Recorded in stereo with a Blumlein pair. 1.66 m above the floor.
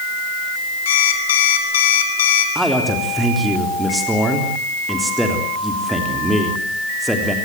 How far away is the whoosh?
No whoosh in this recording.